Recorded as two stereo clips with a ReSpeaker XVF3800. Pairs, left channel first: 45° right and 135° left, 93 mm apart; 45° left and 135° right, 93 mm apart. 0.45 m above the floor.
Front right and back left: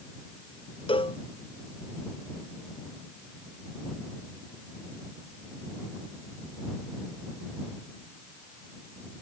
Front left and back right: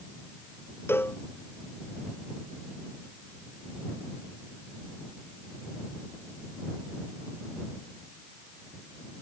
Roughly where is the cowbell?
Ahead.